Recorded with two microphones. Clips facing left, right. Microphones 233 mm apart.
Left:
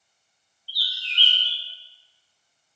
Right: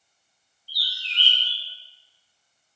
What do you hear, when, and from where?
0.7 s a bird: centre (ahead or behind), 0.6 m